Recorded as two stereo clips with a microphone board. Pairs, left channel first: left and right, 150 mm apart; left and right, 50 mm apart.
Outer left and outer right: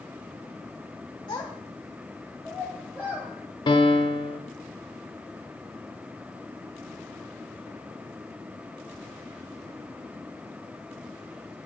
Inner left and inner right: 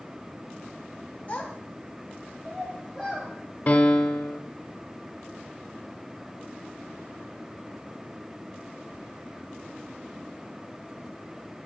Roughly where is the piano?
Left.